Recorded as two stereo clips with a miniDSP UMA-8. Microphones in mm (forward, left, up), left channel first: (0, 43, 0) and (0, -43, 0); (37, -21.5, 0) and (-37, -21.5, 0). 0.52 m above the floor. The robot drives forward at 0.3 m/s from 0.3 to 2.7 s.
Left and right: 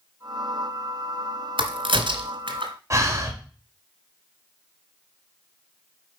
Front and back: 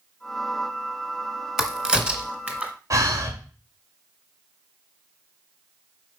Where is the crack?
95° right, 1.4 m; by 2.7 s 110° right, 1.4 m.